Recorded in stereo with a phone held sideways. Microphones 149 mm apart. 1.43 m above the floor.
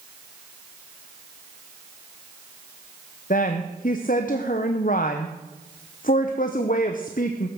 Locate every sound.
3.3 s a woman speaking: 65° left (ahead or behind), 0.8 m